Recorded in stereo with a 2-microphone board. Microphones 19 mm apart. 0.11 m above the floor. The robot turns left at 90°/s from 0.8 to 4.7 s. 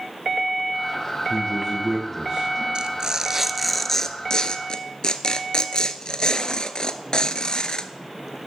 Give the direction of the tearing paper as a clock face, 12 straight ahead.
3 o'clock.